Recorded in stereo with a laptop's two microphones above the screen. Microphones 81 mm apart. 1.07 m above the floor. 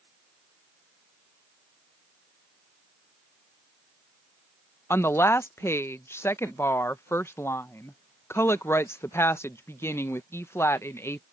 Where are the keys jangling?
No keys jangling in this recording.